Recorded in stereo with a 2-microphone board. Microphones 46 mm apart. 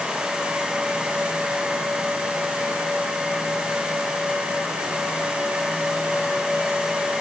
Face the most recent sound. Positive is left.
No sound to turn to.